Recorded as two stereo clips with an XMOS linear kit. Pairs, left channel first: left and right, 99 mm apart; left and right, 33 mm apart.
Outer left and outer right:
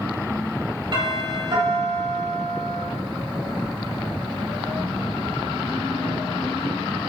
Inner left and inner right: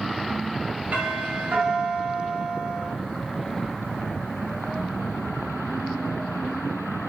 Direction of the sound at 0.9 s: 50° right (ahead or behind).